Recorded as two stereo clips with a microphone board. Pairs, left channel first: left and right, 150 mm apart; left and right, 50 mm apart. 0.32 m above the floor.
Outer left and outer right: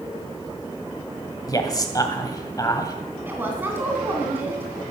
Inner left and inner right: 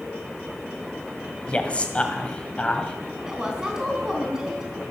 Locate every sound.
1.5 s a man speaking: 25° left (ahead or behind), 1.9 m
3.3 s a woman speaking: 15° right (ahead or behind), 2.5 m